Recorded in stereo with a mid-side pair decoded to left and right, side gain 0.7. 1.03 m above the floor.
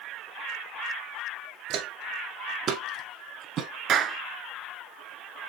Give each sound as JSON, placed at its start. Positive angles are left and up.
{"t": 1.7, "sound": "footsteps", "azimuth_deg": -55, "distance_m": 3.0}
{"t": 3.9, "sound": "a clap", "azimuth_deg": -45, "distance_m": 1.8}